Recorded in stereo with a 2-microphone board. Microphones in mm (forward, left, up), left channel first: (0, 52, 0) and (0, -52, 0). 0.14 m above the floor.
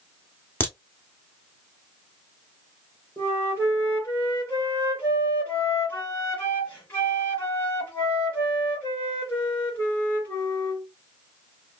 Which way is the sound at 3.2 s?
15° left (ahead or behind).